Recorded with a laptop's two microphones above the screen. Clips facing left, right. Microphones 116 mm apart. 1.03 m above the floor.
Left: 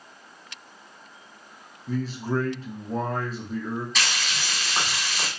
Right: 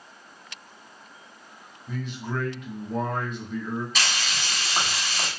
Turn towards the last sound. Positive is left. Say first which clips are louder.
# even
turn(degrees=-5)  # may be behind; listen again after turning